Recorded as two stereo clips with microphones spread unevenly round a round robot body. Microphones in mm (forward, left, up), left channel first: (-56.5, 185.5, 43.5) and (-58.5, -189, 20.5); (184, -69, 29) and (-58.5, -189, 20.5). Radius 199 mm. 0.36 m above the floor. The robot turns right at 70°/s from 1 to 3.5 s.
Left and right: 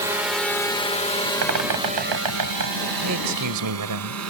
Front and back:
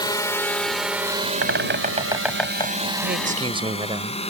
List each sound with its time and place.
0.0 s a drone: 25° right; by 4.3 s 40° right
1.4 s a bird: 130° right; by 2.8 s 35° right
3.0 s a man speaking: 120° right; by 4.2 s 90° right